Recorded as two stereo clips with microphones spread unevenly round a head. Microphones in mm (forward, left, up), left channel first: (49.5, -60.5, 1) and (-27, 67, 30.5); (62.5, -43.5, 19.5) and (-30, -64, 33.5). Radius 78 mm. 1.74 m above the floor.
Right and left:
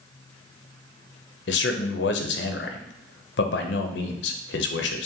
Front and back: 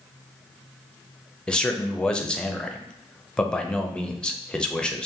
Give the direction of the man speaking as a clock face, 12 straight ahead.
2 o'clock.